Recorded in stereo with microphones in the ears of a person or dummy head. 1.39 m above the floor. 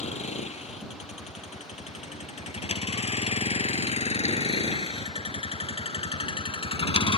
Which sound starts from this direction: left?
A vehicle, at 0.0 s.